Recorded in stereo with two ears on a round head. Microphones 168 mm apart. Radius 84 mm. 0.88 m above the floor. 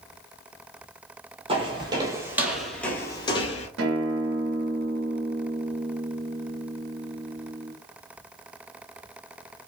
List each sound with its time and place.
1.5 s footsteps: 30° right (ahead or behind), 1.2 m; by 3.7 s 35° left (ahead or behind), 1.0 m
3.8 s a guitar: 75° right (ahead or behind), 1.0 m